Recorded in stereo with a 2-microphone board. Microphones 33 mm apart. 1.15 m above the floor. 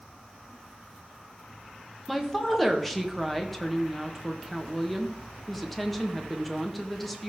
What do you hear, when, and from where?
2.1 s a woman speaking: 5° left (ahead or behind), 1.3 m